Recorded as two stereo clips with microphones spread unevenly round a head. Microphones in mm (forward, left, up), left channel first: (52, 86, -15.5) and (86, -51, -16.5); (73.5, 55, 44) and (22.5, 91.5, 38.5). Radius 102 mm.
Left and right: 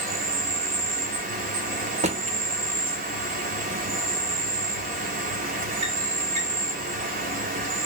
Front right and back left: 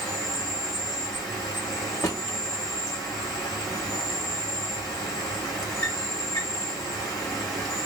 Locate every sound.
0.0 s an insect: 95° right, 1.1 m
2.0 s a drawer: 55° right, 0.7 m